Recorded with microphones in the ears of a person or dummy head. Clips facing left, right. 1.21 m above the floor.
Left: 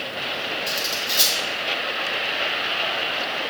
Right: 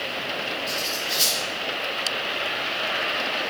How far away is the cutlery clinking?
About 3.5 m.